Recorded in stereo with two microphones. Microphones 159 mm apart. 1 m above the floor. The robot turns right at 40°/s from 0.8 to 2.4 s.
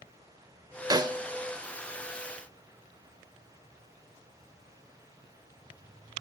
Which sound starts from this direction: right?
A snare drum, at 0.9 s.